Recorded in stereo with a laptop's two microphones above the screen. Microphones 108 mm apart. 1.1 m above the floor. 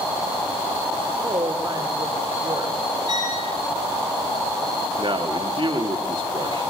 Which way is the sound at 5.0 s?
50° right (ahead or behind).